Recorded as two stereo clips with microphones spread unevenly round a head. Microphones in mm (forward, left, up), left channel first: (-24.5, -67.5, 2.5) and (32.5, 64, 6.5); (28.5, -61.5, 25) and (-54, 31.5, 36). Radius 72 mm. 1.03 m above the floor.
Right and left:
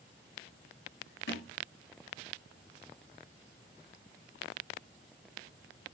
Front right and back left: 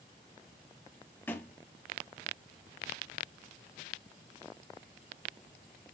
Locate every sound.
1.3 s a thud: 125° right, 3 m